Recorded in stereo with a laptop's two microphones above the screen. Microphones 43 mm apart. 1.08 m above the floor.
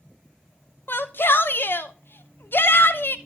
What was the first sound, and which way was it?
A shout, 50° left (ahead or behind).